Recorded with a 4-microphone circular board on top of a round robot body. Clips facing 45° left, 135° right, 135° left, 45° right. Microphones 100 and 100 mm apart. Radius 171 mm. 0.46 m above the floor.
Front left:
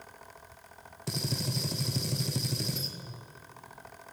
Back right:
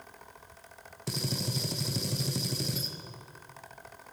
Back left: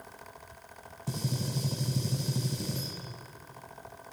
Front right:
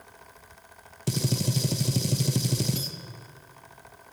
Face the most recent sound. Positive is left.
turn(degrees=-45)